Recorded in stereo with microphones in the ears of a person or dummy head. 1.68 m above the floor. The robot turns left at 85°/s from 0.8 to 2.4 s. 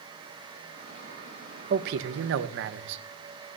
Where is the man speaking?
45° right, 0.9 m; by 3.0 s 105° right, 0.9 m.